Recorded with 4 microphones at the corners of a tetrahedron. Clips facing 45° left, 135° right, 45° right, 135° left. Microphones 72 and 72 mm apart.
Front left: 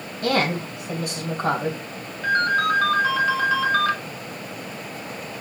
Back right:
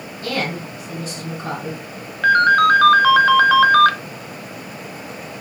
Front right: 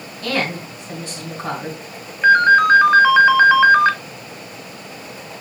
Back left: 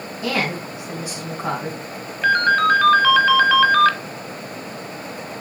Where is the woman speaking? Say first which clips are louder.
Front left 3 dB, front right 1 dB; 60° left, 3 m.